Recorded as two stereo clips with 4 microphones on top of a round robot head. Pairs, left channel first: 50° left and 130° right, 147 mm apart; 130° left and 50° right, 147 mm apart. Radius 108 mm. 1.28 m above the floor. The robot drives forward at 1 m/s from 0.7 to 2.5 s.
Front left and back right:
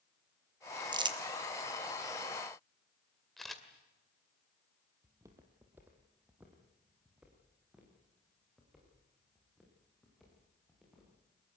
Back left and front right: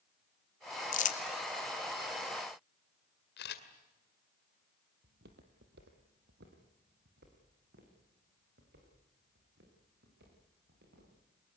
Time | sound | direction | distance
0.9 | crumpling | 165° left | 1.4 m
3.4 | a camera shutter | 135° left | 2 m
5.0 | footsteps | 65° right | 2.5 m